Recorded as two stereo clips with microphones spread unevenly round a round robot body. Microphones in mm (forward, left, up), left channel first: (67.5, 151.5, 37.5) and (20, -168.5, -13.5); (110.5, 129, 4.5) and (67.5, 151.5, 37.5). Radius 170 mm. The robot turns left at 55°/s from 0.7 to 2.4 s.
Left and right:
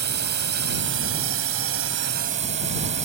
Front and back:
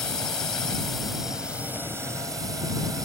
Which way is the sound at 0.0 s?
60° right.